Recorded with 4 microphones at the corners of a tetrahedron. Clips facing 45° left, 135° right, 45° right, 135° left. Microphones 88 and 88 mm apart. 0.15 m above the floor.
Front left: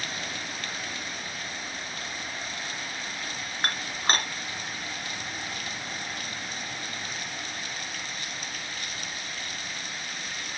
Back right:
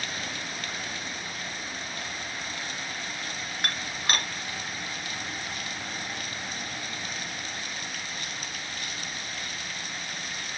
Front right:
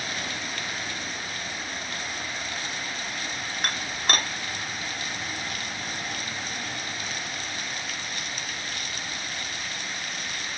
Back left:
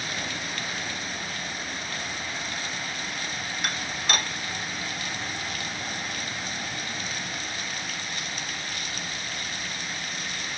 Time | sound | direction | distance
3.6 | dishes clattering | 10° right | 1.7 m